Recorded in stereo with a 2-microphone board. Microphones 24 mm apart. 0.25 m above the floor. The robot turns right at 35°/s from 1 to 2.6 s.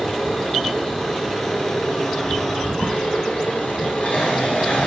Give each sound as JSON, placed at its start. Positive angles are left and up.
{"t": 0.0, "sound": "an engine running", "azimuth_deg": 10, "distance_m": 9.5}